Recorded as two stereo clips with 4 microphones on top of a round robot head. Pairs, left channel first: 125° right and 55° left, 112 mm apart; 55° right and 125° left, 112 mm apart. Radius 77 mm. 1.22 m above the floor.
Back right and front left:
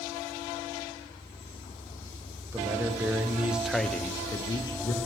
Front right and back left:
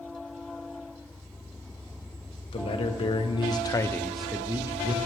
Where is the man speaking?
15° right, 1.2 m; by 5.0 s straight behind, 0.8 m.